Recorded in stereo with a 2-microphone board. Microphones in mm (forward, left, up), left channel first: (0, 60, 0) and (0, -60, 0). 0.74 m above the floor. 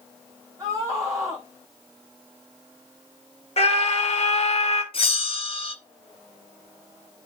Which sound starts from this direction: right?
A scream, at 0.6 s.